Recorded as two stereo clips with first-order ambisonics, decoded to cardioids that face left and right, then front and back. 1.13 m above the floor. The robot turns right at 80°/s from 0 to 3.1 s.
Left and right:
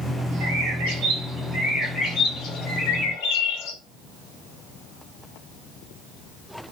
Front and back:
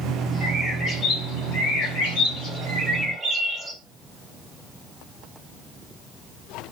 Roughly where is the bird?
Behind right.